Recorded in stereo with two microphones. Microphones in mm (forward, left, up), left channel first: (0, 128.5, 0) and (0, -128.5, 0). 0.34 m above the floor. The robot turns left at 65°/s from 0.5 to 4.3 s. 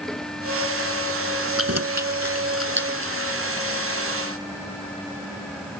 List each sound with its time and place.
1.6 s keys jangling: 55° right (ahead or behind); by 3.1 s 20° right (ahead or behind)